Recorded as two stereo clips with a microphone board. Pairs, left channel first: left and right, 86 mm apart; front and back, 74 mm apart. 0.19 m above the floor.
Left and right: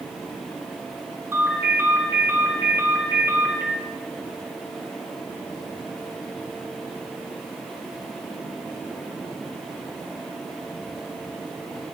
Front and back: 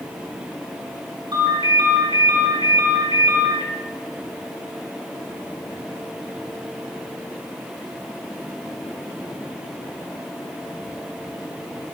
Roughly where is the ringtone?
Behind right.